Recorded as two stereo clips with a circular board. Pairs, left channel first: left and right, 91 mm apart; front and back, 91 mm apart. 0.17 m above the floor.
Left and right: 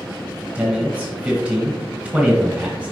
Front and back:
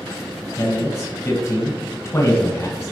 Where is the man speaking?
25° right, 1.7 m.